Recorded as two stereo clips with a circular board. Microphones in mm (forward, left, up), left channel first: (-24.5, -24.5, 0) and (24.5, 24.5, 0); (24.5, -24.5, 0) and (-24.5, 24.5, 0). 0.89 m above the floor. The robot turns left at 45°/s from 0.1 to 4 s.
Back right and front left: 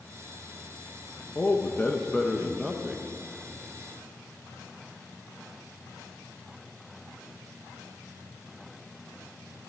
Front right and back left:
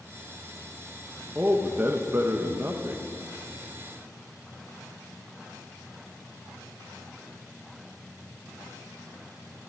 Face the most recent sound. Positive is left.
turn(degrees=70)